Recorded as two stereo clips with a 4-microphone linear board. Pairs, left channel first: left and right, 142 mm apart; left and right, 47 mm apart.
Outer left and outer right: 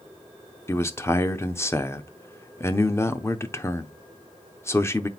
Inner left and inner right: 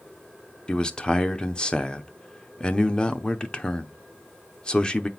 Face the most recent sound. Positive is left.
turn(degrees=20)  # may be behind; listen again after turning